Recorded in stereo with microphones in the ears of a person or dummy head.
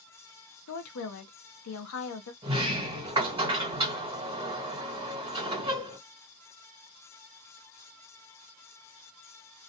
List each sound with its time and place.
0.7 s a woman speaking: 85° left, 0.8 m
2.4 s a sliding door: 25° right (ahead or behind), 1.4 m